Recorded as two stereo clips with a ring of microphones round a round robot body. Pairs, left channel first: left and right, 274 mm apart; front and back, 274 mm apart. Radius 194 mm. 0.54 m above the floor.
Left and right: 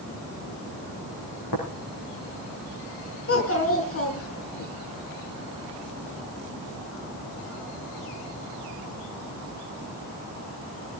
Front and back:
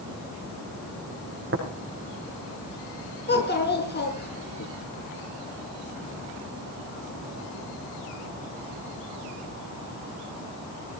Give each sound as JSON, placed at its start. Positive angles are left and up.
{"t": 1.5, "sound": "tapping", "azimuth_deg": 135, "distance_m": 5.5}
{"t": 3.3, "sound": "a child speaking", "azimuth_deg": 55, "distance_m": 5.5}